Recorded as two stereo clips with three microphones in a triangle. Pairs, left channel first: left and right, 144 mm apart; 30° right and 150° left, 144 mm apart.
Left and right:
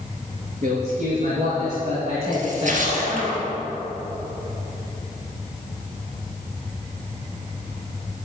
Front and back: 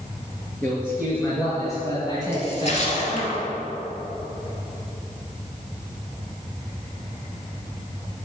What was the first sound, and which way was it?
A man speaking, 105° right.